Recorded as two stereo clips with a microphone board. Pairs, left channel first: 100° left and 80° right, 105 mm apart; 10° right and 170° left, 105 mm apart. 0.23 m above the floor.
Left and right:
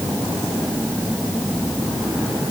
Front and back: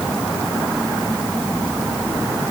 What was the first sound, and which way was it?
Only background noise.